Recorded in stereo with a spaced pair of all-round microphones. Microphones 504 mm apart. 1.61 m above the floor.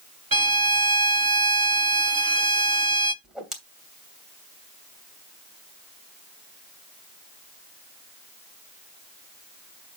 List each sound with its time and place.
0.3 s a violin: 45° right (ahead or behind), 0.9 m
3.2 s a whoosh: centre (ahead or behind), 2.5 m